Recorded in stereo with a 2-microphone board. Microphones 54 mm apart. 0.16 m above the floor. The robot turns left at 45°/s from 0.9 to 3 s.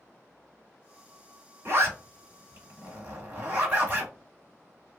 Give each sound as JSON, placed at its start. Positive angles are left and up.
{"t": 1.6, "sound": "a zipper", "side_deg": -40, "distance_m": 1.7}